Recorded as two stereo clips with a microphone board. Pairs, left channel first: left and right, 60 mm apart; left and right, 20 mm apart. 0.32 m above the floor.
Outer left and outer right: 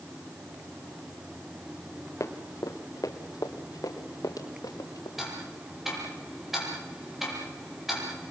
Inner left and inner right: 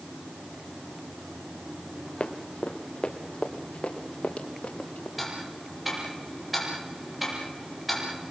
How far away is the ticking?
About 7.5 m.